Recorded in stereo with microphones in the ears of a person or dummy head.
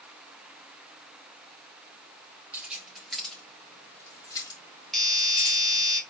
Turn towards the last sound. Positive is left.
turn(degrees=0)  # may be behind; listen again after turning